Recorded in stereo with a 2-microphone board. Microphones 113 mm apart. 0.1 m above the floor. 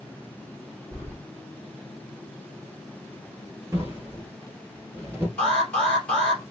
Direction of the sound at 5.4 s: 10° left (ahead or behind).